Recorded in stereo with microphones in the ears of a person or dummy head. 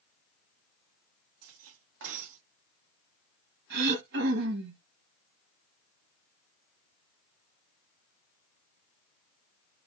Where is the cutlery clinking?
65° right (ahead or behind), 1.4 m.